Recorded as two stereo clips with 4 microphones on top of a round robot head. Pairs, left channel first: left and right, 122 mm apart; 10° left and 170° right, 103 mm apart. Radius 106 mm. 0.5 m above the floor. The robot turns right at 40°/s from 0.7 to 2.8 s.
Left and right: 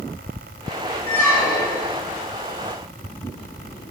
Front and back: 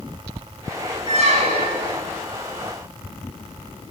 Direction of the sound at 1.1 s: 170° left.